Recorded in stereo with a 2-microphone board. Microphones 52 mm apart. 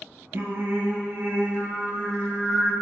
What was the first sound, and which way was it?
Singing, 50° right (ahead or behind).